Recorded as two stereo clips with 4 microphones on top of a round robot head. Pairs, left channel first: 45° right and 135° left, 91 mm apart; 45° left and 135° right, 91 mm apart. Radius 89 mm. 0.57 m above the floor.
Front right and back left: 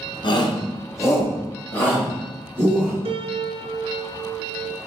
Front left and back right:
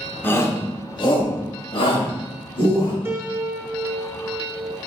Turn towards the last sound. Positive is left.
turn(degrees=160)